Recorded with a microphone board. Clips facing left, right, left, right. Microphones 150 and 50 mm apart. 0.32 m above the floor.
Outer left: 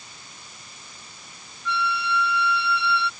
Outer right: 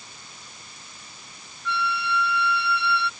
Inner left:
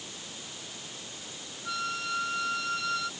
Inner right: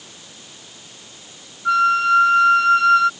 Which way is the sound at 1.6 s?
60° right (ahead or behind).